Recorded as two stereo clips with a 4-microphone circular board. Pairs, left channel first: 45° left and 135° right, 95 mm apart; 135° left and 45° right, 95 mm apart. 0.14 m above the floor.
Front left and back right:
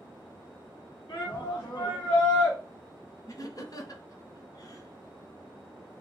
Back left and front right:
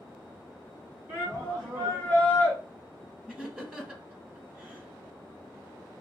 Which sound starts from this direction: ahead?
A shout, at 1.1 s.